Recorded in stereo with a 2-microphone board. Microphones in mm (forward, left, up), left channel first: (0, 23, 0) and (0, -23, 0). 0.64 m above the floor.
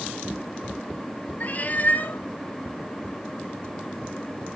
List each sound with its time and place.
1.4 s a cat meowing: 40° left (ahead or behind), 0.8 m